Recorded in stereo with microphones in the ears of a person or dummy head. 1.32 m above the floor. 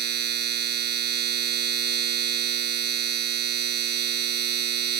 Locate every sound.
0.0 s a machine running: 60° right (ahead or behind)